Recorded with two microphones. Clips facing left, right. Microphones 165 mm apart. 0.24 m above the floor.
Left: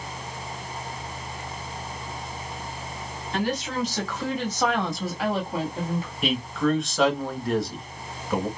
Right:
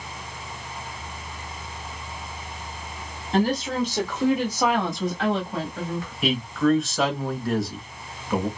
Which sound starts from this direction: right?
A woman speaking, at 3.3 s.